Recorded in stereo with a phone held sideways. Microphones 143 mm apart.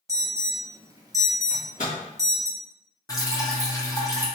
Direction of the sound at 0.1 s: 25° right (ahead or behind).